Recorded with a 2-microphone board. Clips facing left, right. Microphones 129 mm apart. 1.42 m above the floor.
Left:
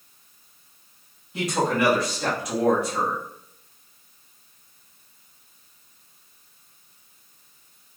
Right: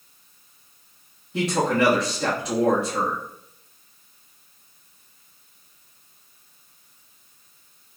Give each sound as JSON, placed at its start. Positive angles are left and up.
{"t": 1.3, "sound": "a man speaking", "side_deg": -30, "distance_m": 1.7}